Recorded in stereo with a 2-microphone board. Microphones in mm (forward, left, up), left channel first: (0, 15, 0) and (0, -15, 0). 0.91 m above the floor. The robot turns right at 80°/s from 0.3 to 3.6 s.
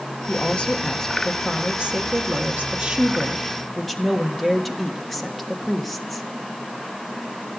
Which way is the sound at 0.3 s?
100° left.